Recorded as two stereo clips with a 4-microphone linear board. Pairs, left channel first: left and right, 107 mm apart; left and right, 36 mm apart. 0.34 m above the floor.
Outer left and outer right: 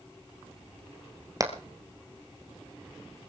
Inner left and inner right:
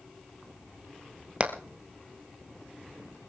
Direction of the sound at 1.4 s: 35° right (ahead or behind).